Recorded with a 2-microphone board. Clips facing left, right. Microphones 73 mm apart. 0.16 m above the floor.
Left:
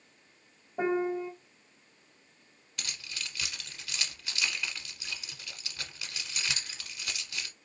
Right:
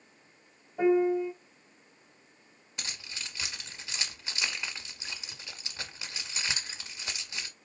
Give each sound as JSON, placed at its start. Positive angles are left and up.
{"t": 0.8, "sound": "a piano", "side_deg": 30, "distance_m": 1.7}
{"t": 2.8, "sound": "keys jangling", "side_deg": -25, "distance_m": 1.0}